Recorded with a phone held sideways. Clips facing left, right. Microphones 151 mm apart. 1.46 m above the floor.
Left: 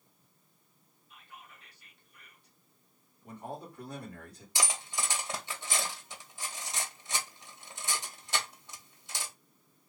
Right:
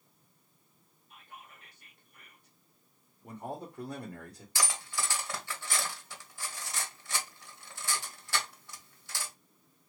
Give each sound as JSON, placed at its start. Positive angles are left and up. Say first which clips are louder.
{"t": 1.1, "sound": "whispering", "louder": "right 1 dB", "side_deg": -50, "distance_m": 1.3}
{"t": 3.2, "sound": "a man speaking", "louder": "right 2 dB", "side_deg": -45, "distance_m": 1.3}
{"t": 4.5, "sound": "cutlery clinking", "louder": "even", "side_deg": 20, "distance_m": 0.7}